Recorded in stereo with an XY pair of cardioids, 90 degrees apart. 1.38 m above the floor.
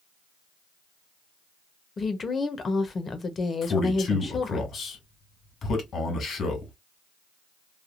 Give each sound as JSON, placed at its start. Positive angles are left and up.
{"t": 2.0, "sound": "a woman speaking", "azimuth_deg": 40, "distance_m": 1.0}
{"t": 3.6, "sound": "a man speaking", "azimuth_deg": 60, "distance_m": 2.0}